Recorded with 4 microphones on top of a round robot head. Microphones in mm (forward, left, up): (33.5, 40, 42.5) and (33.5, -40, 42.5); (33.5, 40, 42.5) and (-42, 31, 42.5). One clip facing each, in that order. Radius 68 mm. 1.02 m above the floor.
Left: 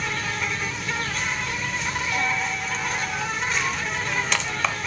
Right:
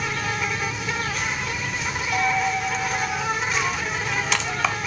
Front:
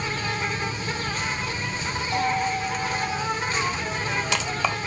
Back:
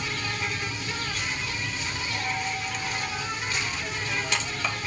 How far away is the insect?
About 0.8 m.